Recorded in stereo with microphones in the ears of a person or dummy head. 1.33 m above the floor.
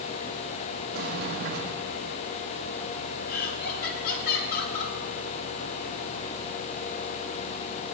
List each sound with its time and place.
0.9 s a sliding door: 55° right (ahead or behind), 1.6 m
3.3 s laughter: 55° left (ahead or behind), 3 m